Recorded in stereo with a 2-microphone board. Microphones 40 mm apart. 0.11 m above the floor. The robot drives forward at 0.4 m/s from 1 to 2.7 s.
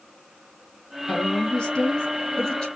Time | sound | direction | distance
1.1 | a woman speaking | 20° left (ahead or behind) | 1.4 m